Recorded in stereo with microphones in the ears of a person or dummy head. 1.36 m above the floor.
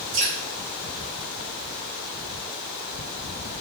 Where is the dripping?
35° right (ahead or behind), 1.7 m.